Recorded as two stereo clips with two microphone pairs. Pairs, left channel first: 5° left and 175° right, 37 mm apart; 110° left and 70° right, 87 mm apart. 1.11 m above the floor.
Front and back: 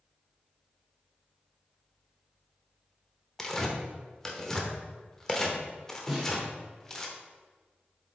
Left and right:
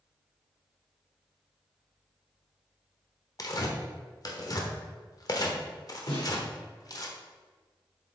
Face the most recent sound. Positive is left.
turn(degrees=105)